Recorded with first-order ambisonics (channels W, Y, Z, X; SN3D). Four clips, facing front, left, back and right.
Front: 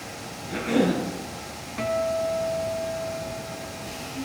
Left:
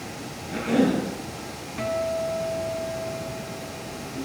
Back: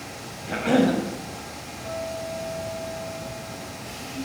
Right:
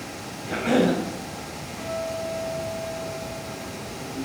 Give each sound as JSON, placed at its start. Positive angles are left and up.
{"t": 0.5, "sound": "a cough", "azimuth_deg": -145, "distance_m": 3.5}
{"t": 1.8, "sound": "a guitar", "azimuth_deg": 30, "distance_m": 2.5}